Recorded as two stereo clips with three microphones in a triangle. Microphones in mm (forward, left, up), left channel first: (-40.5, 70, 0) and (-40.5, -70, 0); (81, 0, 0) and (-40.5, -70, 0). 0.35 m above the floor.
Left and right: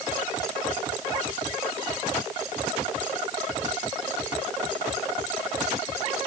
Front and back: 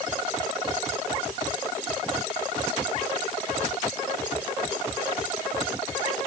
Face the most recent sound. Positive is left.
No sound to turn to.